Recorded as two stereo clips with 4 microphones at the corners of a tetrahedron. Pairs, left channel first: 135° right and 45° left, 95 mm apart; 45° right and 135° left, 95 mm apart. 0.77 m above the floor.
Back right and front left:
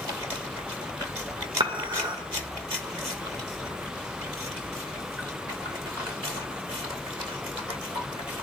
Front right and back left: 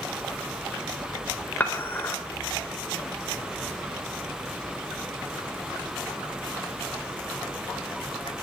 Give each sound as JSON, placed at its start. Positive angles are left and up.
{"t": 1.6, "sound": "dishes clattering", "azimuth_deg": 20, "distance_m": 2.0}